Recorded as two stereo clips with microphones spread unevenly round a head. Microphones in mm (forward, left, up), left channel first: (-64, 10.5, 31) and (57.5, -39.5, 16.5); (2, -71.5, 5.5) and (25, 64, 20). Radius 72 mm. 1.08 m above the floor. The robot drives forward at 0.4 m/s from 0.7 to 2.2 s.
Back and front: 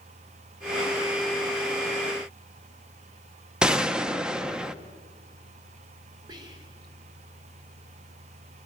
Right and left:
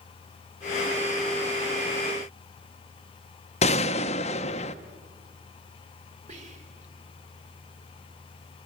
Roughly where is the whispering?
Ahead left.